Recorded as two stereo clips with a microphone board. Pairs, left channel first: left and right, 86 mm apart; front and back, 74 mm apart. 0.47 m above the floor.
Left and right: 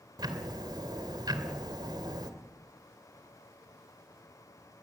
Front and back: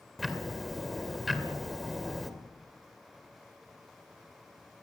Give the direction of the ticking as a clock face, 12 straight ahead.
3 o'clock.